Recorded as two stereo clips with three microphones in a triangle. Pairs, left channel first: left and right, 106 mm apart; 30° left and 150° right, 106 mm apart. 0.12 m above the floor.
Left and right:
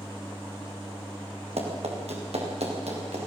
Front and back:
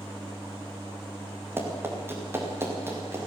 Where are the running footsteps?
80° right, 6 m; by 3.2 s 85° right, 8 m.